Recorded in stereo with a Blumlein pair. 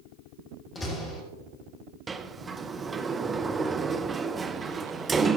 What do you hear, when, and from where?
0.8 s a door slam: 20° left, 2.5 m
2.1 s a sliding door: 15° right, 0.6 m